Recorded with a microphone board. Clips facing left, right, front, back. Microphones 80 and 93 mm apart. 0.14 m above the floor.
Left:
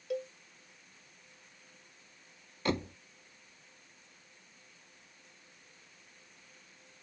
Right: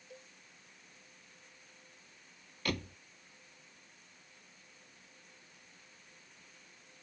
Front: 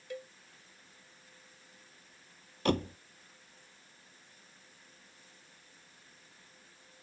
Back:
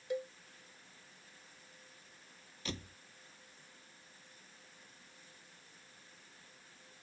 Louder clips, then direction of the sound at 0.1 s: Left 19 dB, back 5 dB; 110° left.